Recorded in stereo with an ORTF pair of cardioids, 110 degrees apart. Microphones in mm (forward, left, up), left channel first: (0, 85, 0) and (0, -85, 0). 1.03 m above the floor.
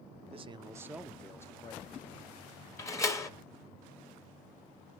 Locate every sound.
0.3 s a man speaking: 35° right, 0.7 m; by 2.7 s 50° left, 1.1 m
2.8 s a door slam: 20° left, 1.1 m